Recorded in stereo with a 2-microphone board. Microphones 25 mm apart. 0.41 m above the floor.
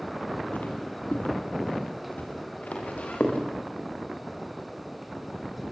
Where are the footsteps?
75° left (ahead or behind), 5.5 m; by 3.4 s 65° left (ahead or behind), 7.5 m.